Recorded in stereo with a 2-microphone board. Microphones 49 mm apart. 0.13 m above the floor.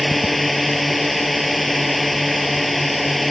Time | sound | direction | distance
0.0 | a drone | centre (ahead or behind) | ?